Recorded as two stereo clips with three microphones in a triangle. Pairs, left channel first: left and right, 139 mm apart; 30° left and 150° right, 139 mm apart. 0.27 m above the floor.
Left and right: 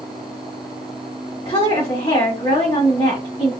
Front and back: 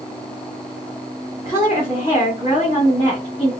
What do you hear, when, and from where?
1.4 s a woman speaking: 55° left, 1.8 m